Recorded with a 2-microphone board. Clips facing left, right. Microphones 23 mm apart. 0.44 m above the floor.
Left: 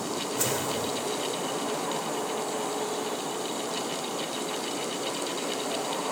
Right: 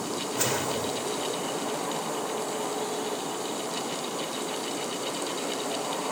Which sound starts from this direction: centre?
A whoosh, at 0.3 s.